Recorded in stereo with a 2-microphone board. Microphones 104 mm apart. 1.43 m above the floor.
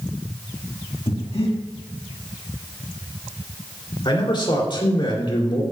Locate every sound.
1.1 s breathing: 65° left (ahead or behind), 1.8 m
4.0 s a man speaking: 50° left (ahead or behind), 3 m